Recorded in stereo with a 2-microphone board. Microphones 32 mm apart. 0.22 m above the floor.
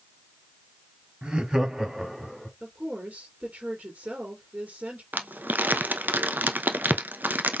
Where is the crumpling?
80° right, 0.6 m.